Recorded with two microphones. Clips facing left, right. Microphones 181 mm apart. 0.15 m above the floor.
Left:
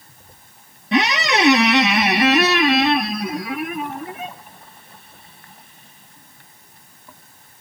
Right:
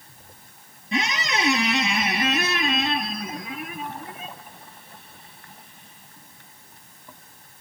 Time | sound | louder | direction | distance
0.9 | a squeak | left 8 dB | 75° left (ahead or behind) | 0.7 m